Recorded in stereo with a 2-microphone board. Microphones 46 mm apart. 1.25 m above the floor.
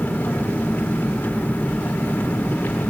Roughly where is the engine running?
Left.